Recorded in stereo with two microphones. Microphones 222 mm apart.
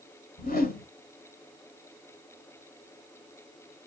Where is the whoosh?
40° left (ahead or behind), 0.7 m.